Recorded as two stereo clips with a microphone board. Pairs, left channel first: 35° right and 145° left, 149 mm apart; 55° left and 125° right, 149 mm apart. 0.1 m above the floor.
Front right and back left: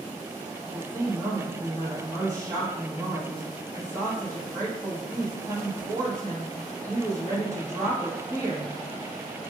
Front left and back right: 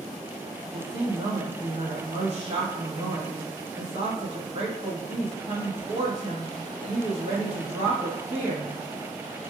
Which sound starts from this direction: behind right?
A woman speaking, at 0.6 s.